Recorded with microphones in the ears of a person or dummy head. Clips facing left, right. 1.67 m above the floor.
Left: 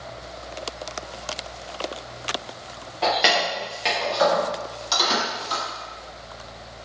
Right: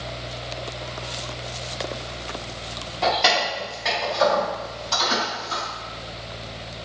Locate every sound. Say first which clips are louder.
3.0 s keys jangling: even; 5° left (ahead or behind), 0.7 m; by 5.6 s 60° left (ahead or behind), 1.7 m